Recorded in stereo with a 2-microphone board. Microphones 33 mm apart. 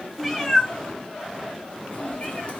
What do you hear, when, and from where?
0.2 s a cat meowing: 5° left (ahead or behind), 0.9 m; by 2.6 s 50° left (ahead or behind), 2.0 m